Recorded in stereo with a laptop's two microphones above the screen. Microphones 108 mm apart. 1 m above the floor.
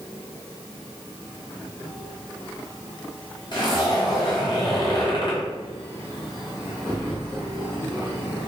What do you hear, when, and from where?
3.5 s a zipper: 45° left (ahead or behind), 1.3 m